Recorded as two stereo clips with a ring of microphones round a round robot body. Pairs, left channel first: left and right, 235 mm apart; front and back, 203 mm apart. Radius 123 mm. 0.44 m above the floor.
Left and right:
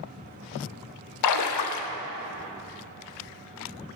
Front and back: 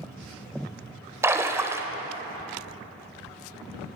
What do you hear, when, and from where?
1.2 s a splash: 100° left, 0.6 m